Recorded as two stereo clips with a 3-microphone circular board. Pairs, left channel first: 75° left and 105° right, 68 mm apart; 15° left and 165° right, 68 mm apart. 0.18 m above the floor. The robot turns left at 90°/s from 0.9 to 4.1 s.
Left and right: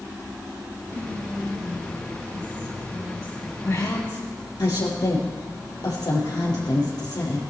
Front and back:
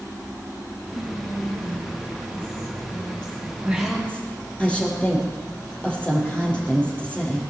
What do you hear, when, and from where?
0.9 s whispering: 125° right, 5 m; by 3.5 s straight ahead, 5 m
3.6 s a woman speaking: 130° left, 5 m; by 7.4 s 90° left, 5 m